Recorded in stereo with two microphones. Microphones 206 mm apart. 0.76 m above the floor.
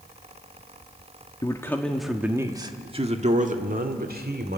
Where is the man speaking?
20° left (ahead or behind), 1.4 m; by 4.6 s 55° right (ahead or behind), 2.5 m.